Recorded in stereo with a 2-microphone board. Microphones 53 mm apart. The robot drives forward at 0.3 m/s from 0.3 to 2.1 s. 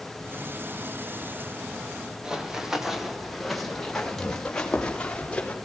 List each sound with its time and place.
2.2 s running footsteps: 15° right (ahead or behind), 4 m; by 5.5 s 20° left (ahead or behind), 6 m